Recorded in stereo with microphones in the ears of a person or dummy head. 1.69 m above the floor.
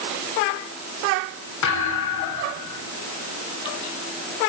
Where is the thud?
70° left (ahead or behind), 8.5 m.